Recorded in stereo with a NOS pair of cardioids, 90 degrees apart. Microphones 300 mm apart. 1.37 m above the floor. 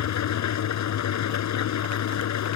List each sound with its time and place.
0.0 s an engine running: 65° left